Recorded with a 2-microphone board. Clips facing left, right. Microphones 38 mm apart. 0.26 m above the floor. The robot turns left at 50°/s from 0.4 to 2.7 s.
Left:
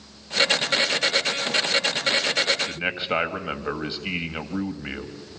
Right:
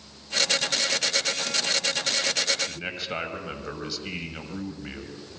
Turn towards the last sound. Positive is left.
turn(degrees=35)  # may be behind; listen again after turning